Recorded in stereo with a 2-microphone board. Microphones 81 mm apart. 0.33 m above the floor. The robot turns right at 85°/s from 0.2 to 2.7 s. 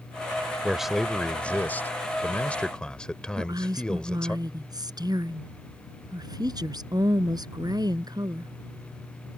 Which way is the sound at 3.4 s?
55° right (ahead or behind).